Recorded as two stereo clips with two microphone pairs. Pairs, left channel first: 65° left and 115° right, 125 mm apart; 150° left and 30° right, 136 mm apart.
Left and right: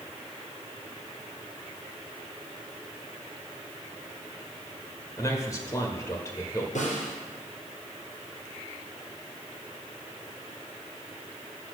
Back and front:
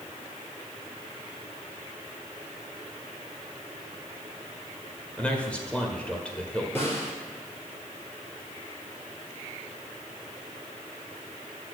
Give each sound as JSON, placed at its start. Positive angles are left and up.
{"t": 5.2, "sound": "a man speaking", "azimuth_deg": 75, "distance_m": 1.4}
{"t": 6.8, "sound": "a snare drum", "azimuth_deg": 75, "distance_m": 3.5}